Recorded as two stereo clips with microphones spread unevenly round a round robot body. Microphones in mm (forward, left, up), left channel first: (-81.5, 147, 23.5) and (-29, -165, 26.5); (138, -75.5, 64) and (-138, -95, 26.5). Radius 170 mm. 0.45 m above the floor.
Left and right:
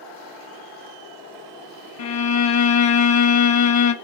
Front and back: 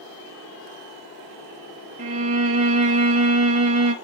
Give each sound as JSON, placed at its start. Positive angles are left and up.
{"t": 2.0, "sound": "a violin", "azimuth_deg": 115, "distance_m": 0.8}